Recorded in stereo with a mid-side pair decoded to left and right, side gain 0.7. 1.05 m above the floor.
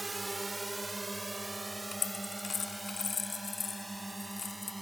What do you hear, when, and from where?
0.0 s a drone: 10° right; by 4.8 s 5° right
1.9 s a dropped coin: 30° left